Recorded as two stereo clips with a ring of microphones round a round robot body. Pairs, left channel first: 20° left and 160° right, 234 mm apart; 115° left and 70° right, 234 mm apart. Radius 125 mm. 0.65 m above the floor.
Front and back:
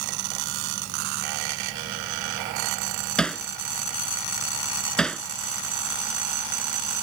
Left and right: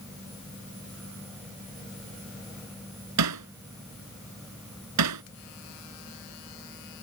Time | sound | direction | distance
3.2 | hammering | 65° right | ?